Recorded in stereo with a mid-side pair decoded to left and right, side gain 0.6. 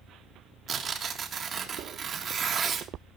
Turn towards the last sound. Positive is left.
turn(degrees=-35)